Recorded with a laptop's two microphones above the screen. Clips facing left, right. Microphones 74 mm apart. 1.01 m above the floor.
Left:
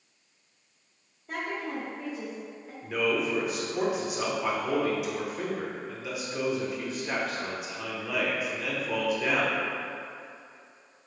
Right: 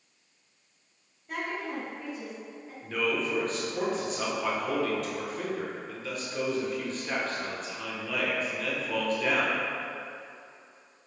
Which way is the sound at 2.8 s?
10° left (ahead or behind).